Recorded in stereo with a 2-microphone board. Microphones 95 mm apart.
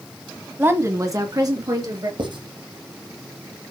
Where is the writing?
55° right (ahead or behind), 3.5 m.